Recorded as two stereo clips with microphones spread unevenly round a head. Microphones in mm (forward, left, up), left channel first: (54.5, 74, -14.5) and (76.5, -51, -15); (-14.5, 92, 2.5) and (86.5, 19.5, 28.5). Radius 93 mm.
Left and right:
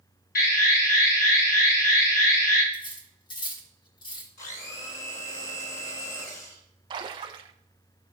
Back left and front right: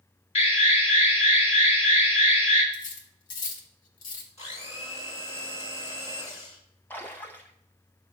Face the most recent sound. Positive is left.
turn(degrees=-130)